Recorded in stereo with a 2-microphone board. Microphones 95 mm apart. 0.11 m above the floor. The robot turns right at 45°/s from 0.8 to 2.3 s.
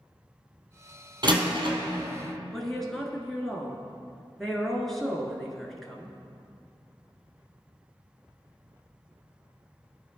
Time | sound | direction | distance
1.2 | a door slam | 55° right (ahead or behind) | 1.8 m
2.5 | a woman speaking | centre (ahead or behind) | 1.2 m